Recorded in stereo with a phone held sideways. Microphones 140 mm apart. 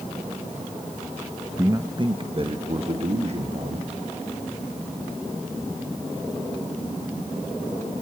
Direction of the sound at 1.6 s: 20° right (ahead or behind).